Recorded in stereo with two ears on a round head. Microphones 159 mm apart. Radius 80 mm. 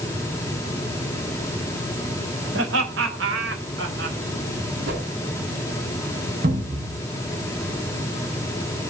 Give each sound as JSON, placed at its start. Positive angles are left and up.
{"t": 2.5, "sound": "laughter", "side_deg": -80, "distance_m": 4.5}
{"t": 4.9, "sound": "a whoosh", "side_deg": -80, "distance_m": 5.5}
{"t": 6.4, "sound": "a cupboard door", "side_deg": -50, "distance_m": 8.0}